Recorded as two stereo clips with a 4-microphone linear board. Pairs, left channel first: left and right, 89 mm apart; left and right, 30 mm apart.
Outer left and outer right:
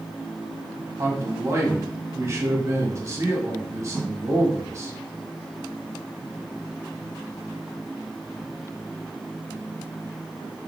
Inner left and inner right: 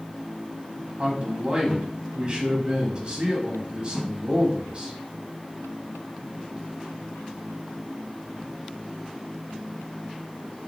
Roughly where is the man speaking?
Right.